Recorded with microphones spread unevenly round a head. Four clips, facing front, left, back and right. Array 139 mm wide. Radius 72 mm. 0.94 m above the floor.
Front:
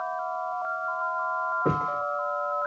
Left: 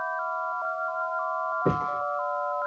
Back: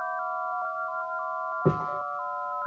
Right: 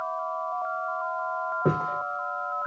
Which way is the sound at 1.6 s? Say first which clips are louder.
Right 1 dB, even; 140° right.